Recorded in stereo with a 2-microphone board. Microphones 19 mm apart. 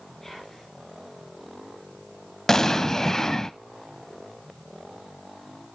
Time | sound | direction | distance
0.2 | whispering | 20° left (ahead or behind) | 4.5 m
2.5 | an explosion | 25° left (ahead or behind) | 0.7 m